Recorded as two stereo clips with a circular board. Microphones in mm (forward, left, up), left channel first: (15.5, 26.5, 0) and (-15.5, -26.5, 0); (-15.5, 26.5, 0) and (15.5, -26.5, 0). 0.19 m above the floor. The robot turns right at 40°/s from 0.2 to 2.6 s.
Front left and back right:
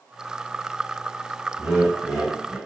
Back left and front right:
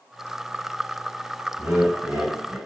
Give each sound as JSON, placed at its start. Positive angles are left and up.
{"t": 1.6, "sound": "laughter", "azimuth_deg": -50, "distance_m": 2.5}